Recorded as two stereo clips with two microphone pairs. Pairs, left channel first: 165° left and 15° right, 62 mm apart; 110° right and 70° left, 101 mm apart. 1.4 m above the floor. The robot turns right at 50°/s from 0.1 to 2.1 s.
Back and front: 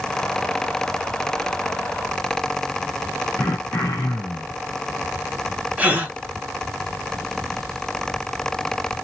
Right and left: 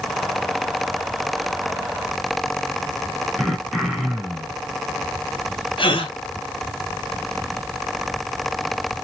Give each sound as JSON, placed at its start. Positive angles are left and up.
{"t": 3.4, "sound": "throat clearing", "azimuth_deg": 160, "distance_m": 1.0}
{"t": 5.8, "sound": "a gasp", "azimuth_deg": -80, "distance_m": 1.0}